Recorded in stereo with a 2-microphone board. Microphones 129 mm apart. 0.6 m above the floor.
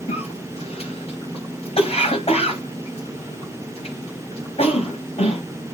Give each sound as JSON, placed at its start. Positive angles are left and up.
{"t": 0.1, "sound": "a cough", "side_deg": 55, "distance_m": 4.5}